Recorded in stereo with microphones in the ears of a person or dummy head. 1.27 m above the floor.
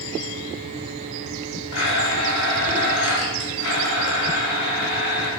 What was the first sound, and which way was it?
A blender, 75° left (ahead or behind).